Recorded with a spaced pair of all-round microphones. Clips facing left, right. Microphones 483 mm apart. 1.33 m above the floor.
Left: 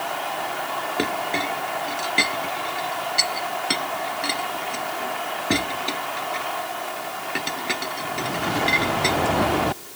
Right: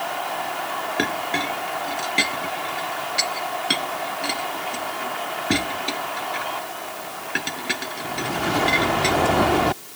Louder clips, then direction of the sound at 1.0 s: Even; 10° right (ahead or behind).